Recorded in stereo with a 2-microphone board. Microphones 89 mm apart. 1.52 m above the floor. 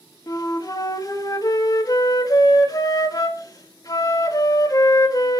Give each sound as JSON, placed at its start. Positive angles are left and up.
{"t": 0.3, "sound": "a flute", "side_deg": 45, "distance_m": 1.5}